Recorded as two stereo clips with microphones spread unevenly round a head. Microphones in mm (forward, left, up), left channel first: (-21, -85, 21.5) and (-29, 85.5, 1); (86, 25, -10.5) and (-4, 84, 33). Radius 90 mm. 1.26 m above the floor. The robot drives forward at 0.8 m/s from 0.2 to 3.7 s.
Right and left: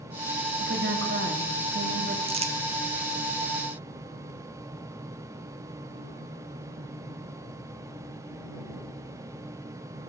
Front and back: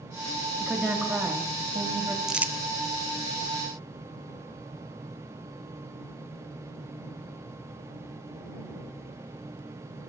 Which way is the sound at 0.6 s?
60° left.